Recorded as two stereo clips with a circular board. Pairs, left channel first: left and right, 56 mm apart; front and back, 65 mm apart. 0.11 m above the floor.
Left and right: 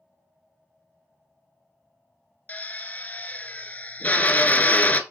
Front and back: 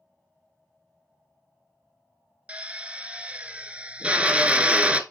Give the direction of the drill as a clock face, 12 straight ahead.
8 o'clock.